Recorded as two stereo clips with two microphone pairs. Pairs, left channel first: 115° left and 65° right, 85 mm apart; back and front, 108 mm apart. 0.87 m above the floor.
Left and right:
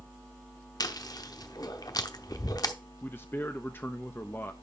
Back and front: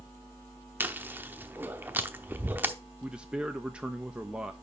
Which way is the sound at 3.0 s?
75° left.